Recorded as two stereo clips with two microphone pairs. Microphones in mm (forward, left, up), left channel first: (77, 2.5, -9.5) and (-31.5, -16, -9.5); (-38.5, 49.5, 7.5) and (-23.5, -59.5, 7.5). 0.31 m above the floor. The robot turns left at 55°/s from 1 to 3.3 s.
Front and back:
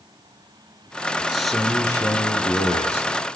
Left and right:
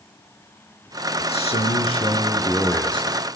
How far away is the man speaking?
About 4.5 m.